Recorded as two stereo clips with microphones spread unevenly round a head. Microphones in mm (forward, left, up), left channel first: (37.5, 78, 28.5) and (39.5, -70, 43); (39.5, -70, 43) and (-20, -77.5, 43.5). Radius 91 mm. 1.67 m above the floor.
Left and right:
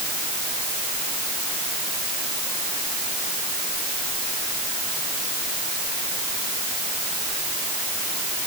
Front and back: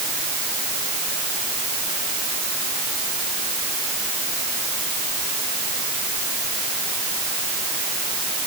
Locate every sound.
Only background noise.